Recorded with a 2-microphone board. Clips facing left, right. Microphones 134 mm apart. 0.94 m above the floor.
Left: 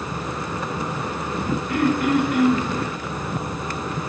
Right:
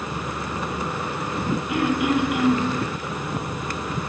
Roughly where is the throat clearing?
Centre.